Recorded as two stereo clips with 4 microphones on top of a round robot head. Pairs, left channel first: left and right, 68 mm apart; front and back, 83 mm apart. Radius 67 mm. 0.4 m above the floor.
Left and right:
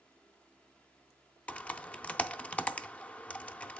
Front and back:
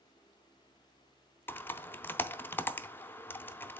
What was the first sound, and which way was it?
Typing on a keyboard, 40° left.